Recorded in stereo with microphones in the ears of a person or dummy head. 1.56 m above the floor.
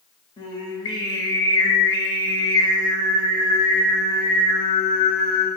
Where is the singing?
25° left (ahead or behind), 0.5 m.